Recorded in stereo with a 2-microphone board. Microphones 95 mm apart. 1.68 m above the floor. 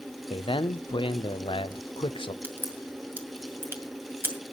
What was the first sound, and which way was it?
A man speaking, 70° left (ahead or behind).